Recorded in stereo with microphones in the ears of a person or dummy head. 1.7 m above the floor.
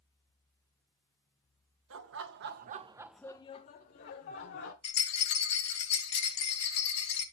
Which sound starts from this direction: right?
Laughter, at 1.9 s.